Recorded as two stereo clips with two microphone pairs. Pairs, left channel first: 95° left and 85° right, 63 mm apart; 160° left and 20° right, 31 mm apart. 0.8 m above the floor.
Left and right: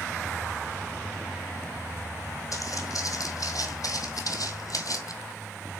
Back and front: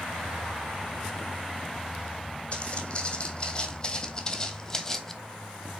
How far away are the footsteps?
About 2.5 m.